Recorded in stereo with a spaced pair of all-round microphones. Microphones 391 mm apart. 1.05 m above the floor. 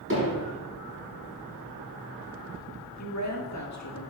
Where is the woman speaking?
45° left (ahead or behind), 1.8 m.